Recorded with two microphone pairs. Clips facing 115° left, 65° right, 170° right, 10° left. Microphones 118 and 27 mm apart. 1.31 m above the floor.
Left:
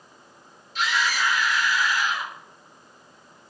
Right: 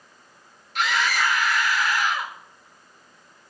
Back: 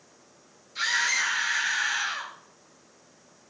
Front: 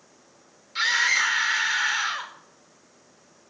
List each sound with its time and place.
0.8 s a scream: 35° right, 3.5 m